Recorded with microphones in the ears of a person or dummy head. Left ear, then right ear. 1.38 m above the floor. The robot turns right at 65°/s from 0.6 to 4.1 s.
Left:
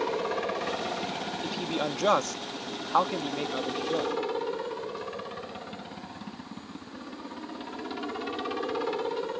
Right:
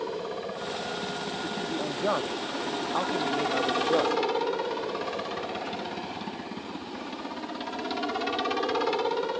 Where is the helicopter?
105° left; by 9.4 s 30° right.